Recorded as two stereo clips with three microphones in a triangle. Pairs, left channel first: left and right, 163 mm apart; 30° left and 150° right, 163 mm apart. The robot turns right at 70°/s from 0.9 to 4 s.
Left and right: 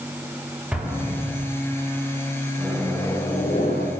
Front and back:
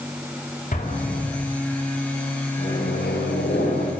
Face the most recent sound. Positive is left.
turn(degrees=80)